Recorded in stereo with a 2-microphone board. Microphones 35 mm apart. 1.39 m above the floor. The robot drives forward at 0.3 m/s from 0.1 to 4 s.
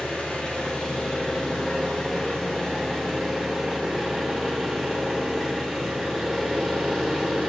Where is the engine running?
40° left (ahead or behind), 1.2 m; by 7.5 s 20° left (ahead or behind), 2 m.